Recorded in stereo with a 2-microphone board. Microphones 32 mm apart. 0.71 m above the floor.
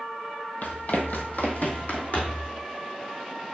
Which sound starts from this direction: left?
Running footsteps, at 0.6 s.